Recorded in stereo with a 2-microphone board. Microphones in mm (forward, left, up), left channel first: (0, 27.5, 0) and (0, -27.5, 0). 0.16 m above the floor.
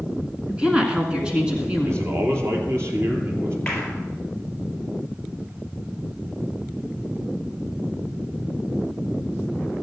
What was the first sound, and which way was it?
A woman speaking, 15° right (ahead or behind).